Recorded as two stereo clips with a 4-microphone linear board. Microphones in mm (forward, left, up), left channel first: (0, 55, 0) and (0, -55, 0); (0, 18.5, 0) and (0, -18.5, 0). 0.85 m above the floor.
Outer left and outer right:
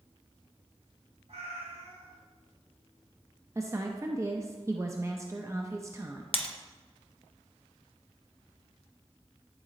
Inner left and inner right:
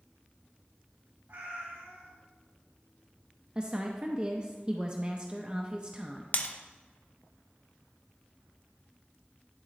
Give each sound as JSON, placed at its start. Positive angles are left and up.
{"t": 1.3, "sound": "a cat meowing", "side_deg": -75, "distance_m": 1.9}
{"t": 3.5, "sound": "a woman speaking", "side_deg": -25, "distance_m": 0.6}
{"t": 6.3, "sound": "breaking glass", "side_deg": 55, "distance_m": 0.7}